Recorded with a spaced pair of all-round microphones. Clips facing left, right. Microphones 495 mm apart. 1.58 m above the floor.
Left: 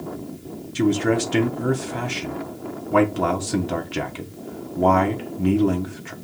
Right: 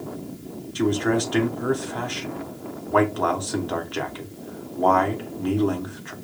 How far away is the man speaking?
About 0.7 m.